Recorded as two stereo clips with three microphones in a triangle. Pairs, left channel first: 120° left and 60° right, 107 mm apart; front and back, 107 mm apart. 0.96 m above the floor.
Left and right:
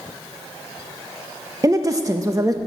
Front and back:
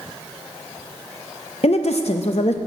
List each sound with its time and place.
1.6 s a woman speaking: straight ahead, 0.6 m